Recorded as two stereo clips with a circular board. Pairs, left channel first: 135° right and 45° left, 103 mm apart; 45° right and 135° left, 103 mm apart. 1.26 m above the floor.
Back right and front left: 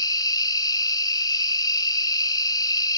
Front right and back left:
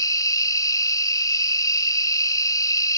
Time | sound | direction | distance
0.0 | an insect | 90° right | ?